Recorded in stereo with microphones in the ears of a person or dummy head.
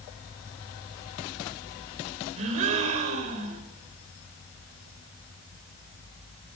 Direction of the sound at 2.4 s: 35° right (ahead or behind).